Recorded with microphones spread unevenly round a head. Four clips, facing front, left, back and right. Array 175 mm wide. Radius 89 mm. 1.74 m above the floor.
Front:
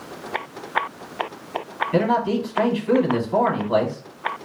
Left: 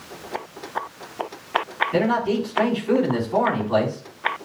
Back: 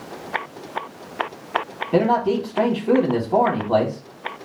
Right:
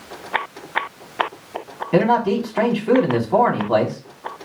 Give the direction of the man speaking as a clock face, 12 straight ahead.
5 o'clock.